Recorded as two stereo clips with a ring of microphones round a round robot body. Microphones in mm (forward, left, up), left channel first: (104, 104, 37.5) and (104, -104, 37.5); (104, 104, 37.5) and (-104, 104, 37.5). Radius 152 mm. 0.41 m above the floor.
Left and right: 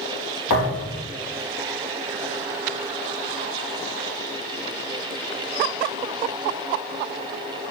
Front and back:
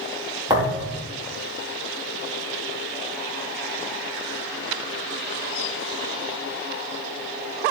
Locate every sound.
0.5 s a thud: 110° left, 4.5 m